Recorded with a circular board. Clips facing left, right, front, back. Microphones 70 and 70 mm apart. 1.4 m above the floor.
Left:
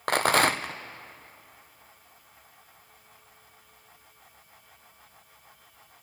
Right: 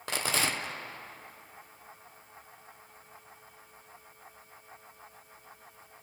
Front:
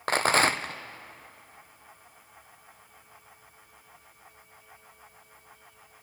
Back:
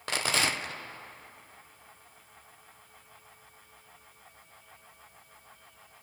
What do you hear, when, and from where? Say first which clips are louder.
0.1 s a rattle: left 9 dB, front 7 dB; 50° left, 0.6 m